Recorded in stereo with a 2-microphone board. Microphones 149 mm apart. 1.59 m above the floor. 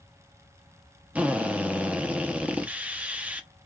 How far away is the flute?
I don't hear a flute.